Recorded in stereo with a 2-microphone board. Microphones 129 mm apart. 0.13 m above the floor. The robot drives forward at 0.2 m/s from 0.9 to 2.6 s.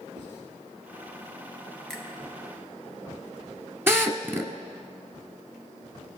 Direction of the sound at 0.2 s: 80° right.